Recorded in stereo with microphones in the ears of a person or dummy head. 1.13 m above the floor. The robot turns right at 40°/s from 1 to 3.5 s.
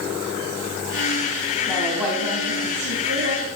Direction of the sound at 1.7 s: 170° left.